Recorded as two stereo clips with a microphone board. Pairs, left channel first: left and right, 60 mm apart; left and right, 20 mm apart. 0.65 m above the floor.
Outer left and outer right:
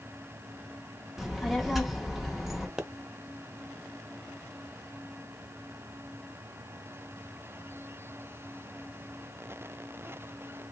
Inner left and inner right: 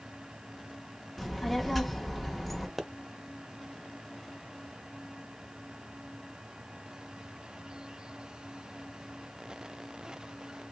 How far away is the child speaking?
About 0.7 m.